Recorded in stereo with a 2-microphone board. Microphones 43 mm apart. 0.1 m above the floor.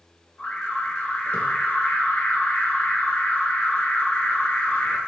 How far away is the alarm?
About 1.0 m.